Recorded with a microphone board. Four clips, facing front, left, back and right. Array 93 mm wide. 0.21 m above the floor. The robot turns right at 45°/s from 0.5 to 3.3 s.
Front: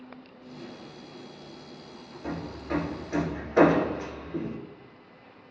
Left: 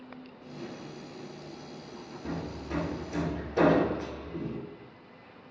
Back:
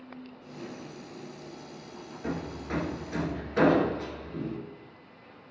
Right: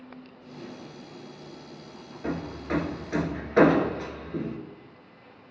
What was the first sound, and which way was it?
Hammering, 120° right.